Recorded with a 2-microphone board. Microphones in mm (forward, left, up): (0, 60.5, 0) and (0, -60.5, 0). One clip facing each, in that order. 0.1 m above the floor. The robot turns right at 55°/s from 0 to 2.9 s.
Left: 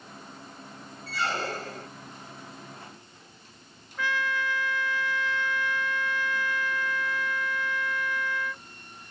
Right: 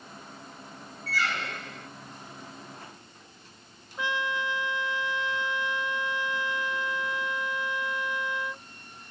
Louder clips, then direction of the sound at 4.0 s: Left 1 dB; 20° right (ahead or behind).